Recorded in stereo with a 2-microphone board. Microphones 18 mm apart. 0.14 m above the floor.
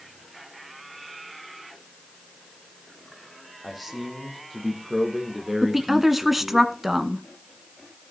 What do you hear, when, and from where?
3.6 s a man speaking: 5° left (ahead or behind), 5 m; by 6.6 s 5° right (ahead or behind), 4 m
5.6 s a woman speaking: 5° right (ahead or behind), 1.1 m